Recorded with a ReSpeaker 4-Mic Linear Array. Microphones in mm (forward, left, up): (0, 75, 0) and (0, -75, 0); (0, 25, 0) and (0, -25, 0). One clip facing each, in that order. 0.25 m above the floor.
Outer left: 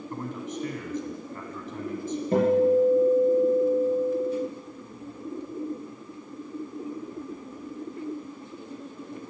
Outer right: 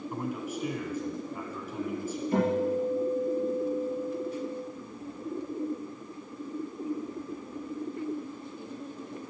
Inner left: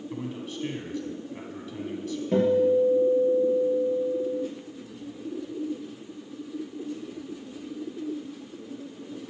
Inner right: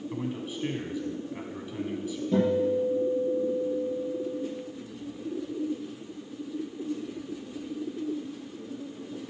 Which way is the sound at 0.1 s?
10° right (ahead or behind).